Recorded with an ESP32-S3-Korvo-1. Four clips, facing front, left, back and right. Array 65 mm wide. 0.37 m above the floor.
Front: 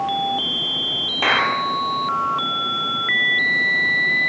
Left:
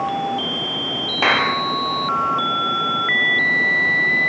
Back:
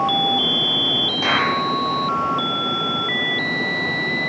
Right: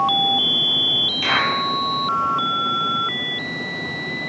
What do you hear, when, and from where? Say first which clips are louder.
1.2 s a clap: left 3 dB, front 2 dB; 70° left, 7 m